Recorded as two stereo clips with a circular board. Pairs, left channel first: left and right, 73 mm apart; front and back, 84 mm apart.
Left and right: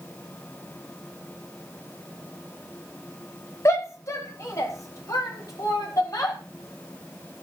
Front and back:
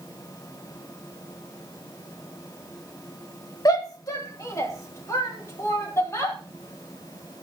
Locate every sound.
3.6 s a shout: 45° left, 2 m; by 6.4 s 55° left, 5.5 m